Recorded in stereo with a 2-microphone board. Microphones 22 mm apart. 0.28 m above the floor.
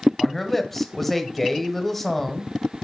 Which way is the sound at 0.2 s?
10° left (ahead or behind).